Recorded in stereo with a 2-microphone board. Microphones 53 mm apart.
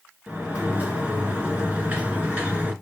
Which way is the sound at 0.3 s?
25° right (ahead or behind).